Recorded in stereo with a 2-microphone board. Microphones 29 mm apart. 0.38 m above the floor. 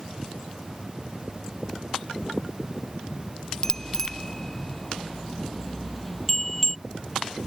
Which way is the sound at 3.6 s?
15° left (ahead or behind).